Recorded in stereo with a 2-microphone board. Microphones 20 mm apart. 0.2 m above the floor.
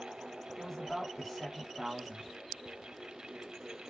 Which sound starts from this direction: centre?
A man speaking, at 0.6 s.